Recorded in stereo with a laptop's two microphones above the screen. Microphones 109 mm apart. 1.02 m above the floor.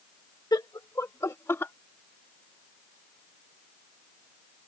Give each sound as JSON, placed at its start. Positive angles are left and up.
{"t": 0.5, "sound": "laughter", "side_deg": 40}